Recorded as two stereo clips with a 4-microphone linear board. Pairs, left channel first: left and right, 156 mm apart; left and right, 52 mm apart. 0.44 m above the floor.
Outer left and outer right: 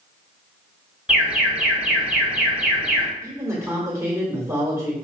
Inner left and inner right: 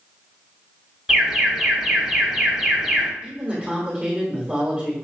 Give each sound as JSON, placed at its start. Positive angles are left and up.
{"t": 1.1, "sound": "an alarm", "side_deg": -5, "distance_m": 1.4}
{"t": 3.2, "sound": "a man speaking", "side_deg": -20, "distance_m": 1.4}